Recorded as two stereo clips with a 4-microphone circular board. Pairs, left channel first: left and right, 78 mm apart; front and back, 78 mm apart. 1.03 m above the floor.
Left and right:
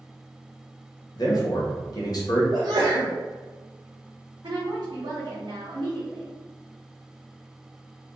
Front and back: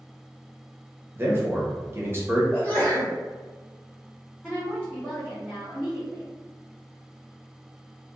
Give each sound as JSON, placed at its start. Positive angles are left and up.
{"t": 1.1, "sound": "a man speaking", "azimuth_deg": 120, "distance_m": 1.1}
{"t": 2.5, "sound": "a sneeze", "azimuth_deg": -70, "distance_m": 0.7}
{"t": 4.4, "sound": "a woman speaking", "azimuth_deg": -85, "distance_m": 1.2}